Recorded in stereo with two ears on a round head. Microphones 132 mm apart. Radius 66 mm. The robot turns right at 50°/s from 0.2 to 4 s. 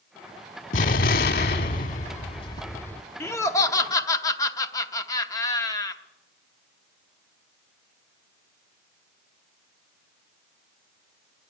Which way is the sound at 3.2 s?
15° left (ahead or behind).